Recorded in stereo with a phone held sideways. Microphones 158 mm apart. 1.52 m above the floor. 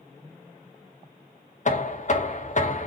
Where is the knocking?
50° left (ahead or behind), 0.5 m.